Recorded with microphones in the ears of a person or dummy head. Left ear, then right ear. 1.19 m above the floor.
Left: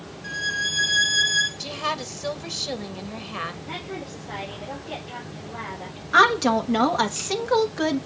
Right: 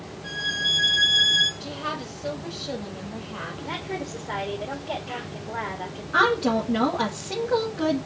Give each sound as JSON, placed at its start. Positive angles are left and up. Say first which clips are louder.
{"t": 0.2, "sound": "a violin", "louder": "right 1 dB", "side_deg": 30, "distance_m": 3.0}
{"t": 1.6, "sound": "a woman speaking", "louder": "left 4 dB", "side_deg": 75, "distance_m": 1.5}
{"t": 3.6, "sound": "a woman speaking", "louder": "right 2 dB", "side_deg": -35, "distance_m": 2.5}
{"t": 6.1, "sound": "a woman speaking", "louder": "left 4 dB", "side_deg": 70, "distance_m": 1.5}